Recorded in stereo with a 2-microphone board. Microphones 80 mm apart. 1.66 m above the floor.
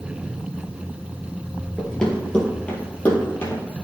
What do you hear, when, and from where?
1.8 s running footsteps: 5° left (ahead or behind), 2 m; by 3.6 s 20° left (ahead or behind), 3 m